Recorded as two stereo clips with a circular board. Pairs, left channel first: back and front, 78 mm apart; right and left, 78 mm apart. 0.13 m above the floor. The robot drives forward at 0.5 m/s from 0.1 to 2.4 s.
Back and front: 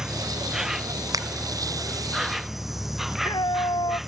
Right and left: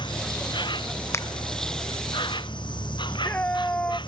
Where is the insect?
85° right; by 4.1 s 90° right.